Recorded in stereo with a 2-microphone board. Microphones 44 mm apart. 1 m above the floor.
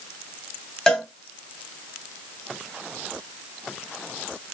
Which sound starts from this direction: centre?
A cowbell, at 0.9 s.